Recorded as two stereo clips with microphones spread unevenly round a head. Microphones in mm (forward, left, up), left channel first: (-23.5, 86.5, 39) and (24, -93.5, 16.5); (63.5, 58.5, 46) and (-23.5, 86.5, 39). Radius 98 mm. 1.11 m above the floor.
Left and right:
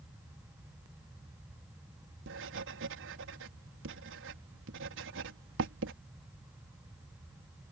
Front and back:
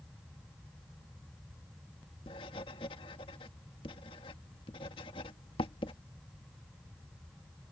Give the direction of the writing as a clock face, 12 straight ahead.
2 o'clock.